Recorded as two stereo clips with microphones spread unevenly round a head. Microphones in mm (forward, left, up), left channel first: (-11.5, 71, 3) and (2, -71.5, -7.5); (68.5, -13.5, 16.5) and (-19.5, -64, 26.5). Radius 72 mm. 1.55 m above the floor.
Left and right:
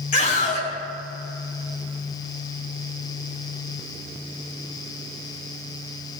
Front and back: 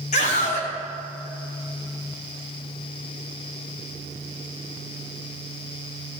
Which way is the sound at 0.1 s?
55° left.